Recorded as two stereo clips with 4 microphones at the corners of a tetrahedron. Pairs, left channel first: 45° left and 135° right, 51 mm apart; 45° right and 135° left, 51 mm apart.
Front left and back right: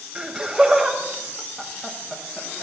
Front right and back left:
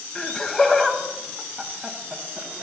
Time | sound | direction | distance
0.1 | laughter | 90° right | 1.5 m